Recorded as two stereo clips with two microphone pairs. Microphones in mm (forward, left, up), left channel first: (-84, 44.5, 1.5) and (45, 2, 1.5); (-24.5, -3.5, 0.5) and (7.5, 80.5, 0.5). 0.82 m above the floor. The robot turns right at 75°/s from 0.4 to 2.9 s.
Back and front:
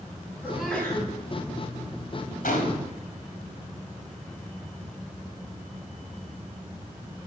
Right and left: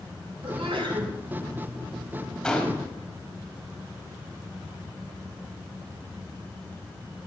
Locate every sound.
0.4 s a sneeze: 55° left, 6 m; by 1.1 s 110° left, 6 m
2.4 s a gunshot: 165° left, 4 m; by 2.9 s 160° right, 4 m